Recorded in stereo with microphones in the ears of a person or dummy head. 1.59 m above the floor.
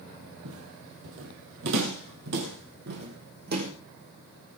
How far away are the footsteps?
About 3 m.